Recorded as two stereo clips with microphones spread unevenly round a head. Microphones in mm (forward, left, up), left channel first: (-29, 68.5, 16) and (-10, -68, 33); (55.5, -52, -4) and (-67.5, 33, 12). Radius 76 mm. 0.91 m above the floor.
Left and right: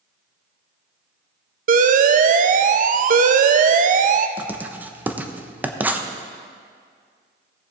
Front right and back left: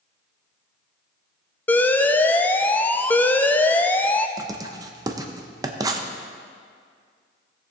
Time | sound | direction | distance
1.7 | an alarm | 110° right | 0.5 m
4.4 | writing | 160° right | 0.7 m